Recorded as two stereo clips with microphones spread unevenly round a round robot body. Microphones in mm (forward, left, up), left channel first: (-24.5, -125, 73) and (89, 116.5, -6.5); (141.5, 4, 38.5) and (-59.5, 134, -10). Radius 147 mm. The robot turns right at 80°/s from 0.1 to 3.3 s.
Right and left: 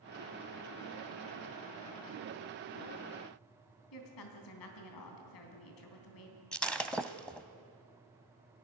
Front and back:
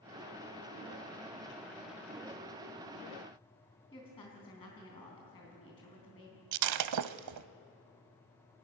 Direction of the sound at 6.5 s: 160° left.